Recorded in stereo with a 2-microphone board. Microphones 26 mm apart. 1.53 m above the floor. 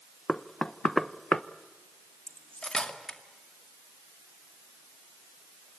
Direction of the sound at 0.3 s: 20° left (ahead or behind).